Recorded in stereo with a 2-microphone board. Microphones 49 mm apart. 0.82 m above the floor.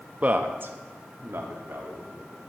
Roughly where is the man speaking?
Right.